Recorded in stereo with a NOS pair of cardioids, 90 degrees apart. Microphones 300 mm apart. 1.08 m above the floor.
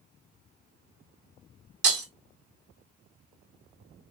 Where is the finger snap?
I don't hear a finger snap.